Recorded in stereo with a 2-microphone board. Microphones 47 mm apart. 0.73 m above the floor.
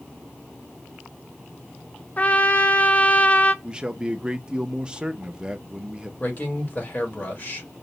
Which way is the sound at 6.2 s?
35° left (ahead or behind).